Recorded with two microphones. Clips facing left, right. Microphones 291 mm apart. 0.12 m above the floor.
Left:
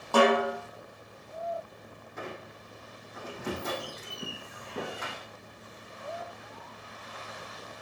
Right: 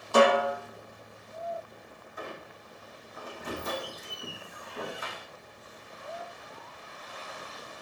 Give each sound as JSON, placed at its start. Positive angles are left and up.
{"t": 0.1, "sound": "a snare drum", "side_deg": 65, "distance_m": 5.5}
{"t": 2.2, "sound": "a squeak", "side_deg": 80, "distance_m": 2.5}